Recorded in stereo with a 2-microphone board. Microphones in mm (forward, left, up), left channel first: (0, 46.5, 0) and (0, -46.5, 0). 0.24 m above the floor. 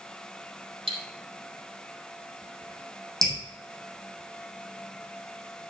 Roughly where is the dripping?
Centre.